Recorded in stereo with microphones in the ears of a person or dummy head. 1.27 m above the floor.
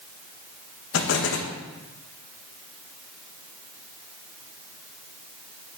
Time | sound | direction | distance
0.9 | an explosion | 75° left (ahead or behind) | 1.2 m